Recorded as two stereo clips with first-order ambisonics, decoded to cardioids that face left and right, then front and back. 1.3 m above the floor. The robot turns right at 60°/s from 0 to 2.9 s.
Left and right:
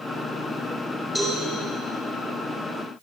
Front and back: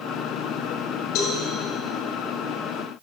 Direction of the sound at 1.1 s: 15° left.